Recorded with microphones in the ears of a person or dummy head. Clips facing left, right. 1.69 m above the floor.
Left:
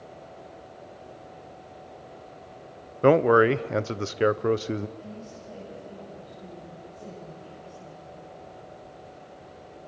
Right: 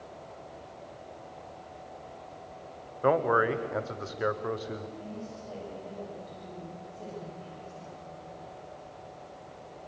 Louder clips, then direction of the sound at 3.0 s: Left 7 dB; 50° left (ahead or behind).